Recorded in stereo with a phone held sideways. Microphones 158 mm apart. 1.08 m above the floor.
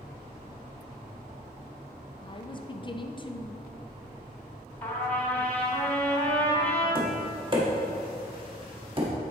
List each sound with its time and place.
2.2 s a woman speaking: 30° left (ahead or behind), 0.5 m
4.8 s a trumpet: 10° left (ahead or behind), 2.5 m
7.0 s tapping: 35° right (ahead or behind), 1.4 m